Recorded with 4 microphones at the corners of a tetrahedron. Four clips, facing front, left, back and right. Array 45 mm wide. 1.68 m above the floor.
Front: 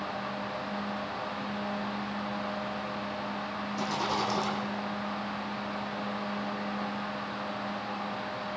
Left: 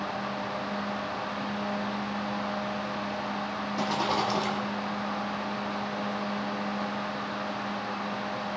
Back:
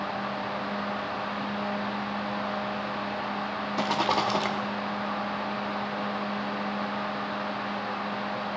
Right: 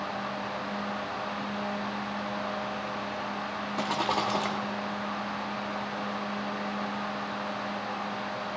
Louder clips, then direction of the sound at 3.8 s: Left 1 dB, back 5 dB; 160° right.